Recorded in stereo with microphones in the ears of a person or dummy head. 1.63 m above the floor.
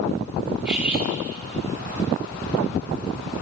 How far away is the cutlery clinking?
About 4 m.